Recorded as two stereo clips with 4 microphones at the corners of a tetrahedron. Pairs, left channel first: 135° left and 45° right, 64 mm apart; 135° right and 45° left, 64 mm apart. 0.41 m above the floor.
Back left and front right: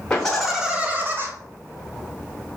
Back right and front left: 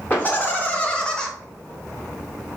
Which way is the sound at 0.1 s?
165° right.